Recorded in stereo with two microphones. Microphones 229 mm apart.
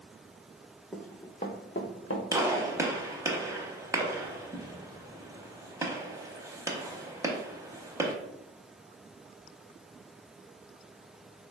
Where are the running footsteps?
Centre (ahead or behind), 0.7 m; by 2.2 s 70° left (ahead or behind), 0.9 m.